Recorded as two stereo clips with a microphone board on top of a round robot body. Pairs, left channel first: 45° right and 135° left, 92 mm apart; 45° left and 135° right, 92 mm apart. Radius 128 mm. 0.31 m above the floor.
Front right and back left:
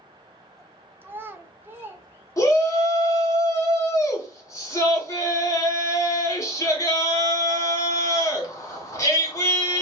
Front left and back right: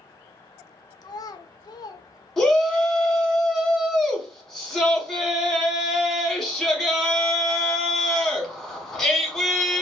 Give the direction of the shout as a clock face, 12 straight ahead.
1 o'clock.